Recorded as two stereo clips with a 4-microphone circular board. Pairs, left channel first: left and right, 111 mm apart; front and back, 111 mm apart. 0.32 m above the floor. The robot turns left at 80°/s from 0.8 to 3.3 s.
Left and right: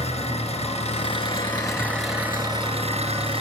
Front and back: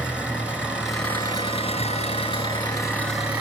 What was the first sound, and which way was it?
An engine running, 100° left.